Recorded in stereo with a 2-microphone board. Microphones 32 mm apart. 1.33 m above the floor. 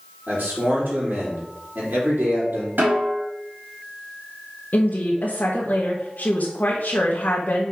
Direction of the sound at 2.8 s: 75° right (ahead or behind).